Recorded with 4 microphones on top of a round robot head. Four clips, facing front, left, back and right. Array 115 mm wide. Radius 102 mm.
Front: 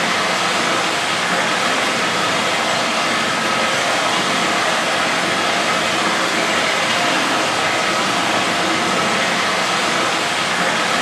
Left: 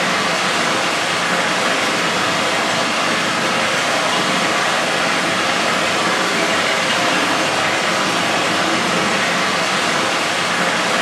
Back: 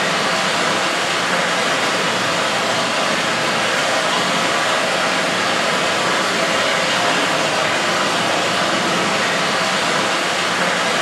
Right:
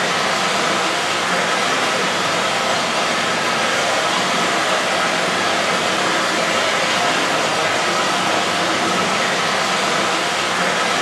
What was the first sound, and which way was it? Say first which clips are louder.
Running water: left 1 dB, even; 90° left.